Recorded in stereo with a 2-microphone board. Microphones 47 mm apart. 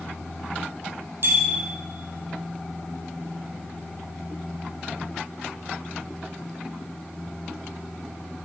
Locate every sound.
1.2 s a bicycle bell: 55° right (ahead or behind), 5.5 m